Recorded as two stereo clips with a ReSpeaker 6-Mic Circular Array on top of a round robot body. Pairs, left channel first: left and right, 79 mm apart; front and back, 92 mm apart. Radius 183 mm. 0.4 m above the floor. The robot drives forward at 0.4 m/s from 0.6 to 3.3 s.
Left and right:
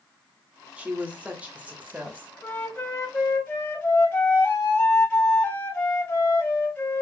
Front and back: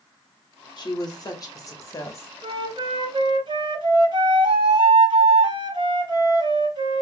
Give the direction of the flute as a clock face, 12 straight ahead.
7 o'clock.